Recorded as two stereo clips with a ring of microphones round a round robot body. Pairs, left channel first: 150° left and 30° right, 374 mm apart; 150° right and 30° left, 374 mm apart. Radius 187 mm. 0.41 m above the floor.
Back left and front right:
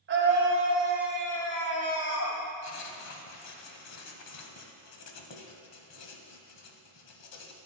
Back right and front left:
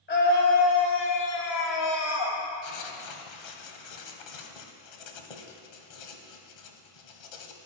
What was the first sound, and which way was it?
A scream, 90° right.